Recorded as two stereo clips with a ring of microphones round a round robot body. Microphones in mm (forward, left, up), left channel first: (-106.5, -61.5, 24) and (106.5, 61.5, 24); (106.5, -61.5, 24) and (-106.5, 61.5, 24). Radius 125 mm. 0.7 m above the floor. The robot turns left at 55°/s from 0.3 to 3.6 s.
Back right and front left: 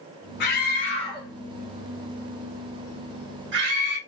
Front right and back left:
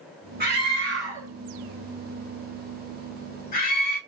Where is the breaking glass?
No breaking glass in this recording.